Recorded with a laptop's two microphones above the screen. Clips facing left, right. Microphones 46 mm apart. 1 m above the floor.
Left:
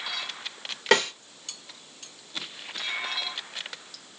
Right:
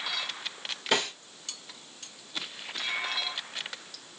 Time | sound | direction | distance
0.9 | a snare drum | 80° left | 1.8 m